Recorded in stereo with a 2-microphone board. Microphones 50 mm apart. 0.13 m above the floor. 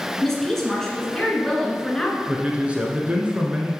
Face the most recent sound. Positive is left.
turn(degrees=-20)  # may be behind; listen again after turning